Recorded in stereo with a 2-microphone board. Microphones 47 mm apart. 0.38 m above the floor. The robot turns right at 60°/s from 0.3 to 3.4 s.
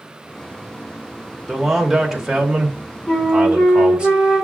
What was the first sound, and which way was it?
A man speaking, centre (ahead or behind).